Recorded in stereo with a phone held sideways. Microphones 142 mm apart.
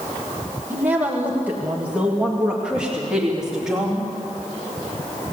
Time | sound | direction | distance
0.7 | a woman speaking | 15° right (ahead or behind) | 2 m